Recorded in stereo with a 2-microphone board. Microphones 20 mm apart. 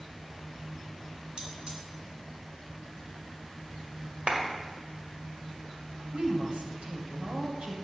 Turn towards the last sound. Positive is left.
turn(degrees=-70)  # may be behind; listen again after turning